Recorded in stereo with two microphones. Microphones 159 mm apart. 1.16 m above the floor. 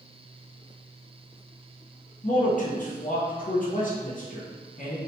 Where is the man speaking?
55° left (ahead or behind), 0.6 m.